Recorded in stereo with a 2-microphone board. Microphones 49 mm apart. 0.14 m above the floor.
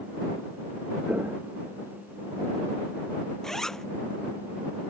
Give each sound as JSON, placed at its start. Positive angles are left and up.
{"t": 1.1, "sound": "footsteps", "side_deg": -30}
{"t": 3.4, "sound": "a zipper", "side_deg": 10}